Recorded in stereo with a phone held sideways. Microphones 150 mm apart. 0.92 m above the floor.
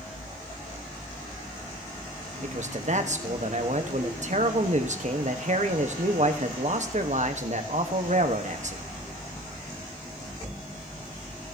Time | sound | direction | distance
2.4 | a man speaking | 50° right (ahead or behind) | 1.1 m